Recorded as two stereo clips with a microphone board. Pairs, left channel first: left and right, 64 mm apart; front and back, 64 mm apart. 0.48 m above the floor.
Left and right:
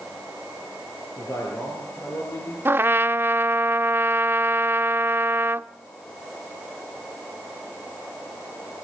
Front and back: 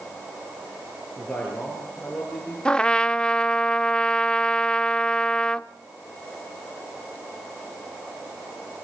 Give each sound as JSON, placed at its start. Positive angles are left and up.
{"t": 1.2, "sound": "a man speaking", "azimuth_deg": 60, "distance_m": 8.5}
{"t": 2.6, "sound": "a trumpet", "azimuth_deg": -70, "distance_m": 0.5}